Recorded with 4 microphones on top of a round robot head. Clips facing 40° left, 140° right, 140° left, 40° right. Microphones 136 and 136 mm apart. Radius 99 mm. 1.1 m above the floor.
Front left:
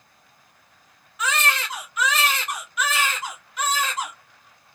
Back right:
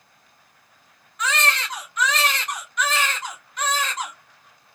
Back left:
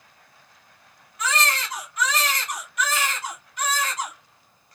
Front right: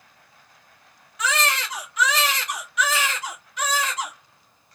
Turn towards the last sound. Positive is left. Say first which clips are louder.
# even, front right 1 dB
turn(degrees=-45)